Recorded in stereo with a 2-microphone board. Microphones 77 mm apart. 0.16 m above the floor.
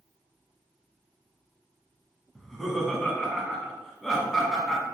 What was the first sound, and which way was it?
Laughter, 5° left (ahead or behind).